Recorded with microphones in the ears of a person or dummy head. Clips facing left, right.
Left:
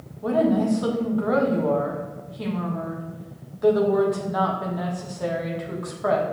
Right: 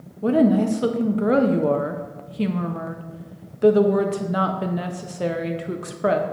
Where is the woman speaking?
35° right (ahead or behind), 0.6 m.